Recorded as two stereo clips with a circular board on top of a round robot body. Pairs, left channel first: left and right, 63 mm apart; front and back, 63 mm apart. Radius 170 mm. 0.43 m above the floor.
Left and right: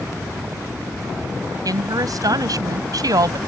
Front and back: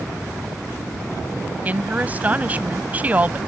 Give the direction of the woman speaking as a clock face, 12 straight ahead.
4 o'clock.